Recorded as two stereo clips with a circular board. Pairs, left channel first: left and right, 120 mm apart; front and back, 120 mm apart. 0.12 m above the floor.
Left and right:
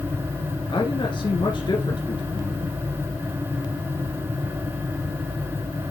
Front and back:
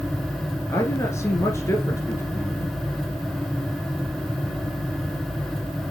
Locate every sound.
0.7 s a man speaking: 60° left, 1.6 m